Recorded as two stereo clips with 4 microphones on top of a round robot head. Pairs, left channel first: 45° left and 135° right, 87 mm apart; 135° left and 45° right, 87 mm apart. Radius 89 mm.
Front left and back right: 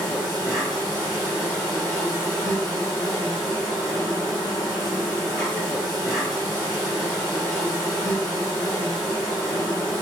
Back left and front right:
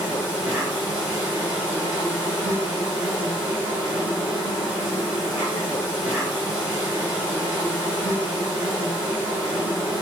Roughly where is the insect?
Behind.